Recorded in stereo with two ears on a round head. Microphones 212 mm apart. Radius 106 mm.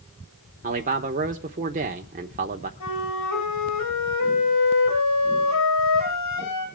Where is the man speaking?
35° right (ahead or behind), 0.9 m.